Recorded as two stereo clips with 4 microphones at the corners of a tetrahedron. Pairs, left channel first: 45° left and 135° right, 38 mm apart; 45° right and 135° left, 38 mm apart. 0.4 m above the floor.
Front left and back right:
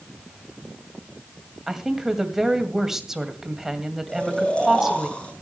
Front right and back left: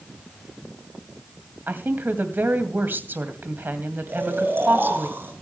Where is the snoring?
110° left, 5.5 m.